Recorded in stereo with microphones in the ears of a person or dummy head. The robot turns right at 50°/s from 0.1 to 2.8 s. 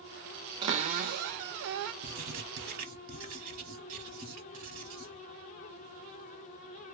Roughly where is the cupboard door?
Behind right.